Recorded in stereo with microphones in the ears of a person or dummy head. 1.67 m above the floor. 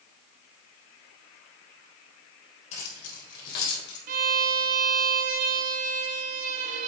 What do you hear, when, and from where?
2.7 s keys jangling: 50° left (ahead or behind), 4 m; by 4.0 s 70° left (ahead or behind), 4 m
4.1 s a violin: 50° right (ahead or behind), 0.9 m